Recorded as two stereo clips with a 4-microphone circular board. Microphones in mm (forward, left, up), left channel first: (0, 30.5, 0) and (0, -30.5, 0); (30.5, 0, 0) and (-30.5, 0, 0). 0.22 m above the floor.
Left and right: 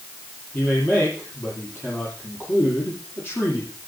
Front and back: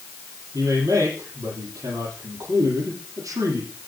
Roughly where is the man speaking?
Behind left.